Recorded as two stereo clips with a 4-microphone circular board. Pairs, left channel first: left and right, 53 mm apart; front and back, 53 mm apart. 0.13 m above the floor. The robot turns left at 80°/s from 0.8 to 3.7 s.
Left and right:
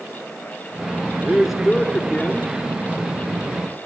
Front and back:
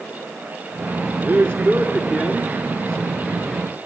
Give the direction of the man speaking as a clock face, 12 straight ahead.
5 o'clock.